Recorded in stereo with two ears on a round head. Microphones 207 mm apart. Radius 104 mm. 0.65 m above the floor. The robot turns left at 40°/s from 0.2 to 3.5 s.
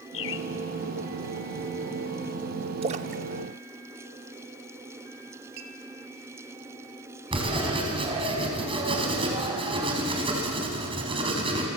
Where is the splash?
25° right (ahead or behind), 0.8 m; by 4.8 s 50° right (ahead or behind), 0.8 m.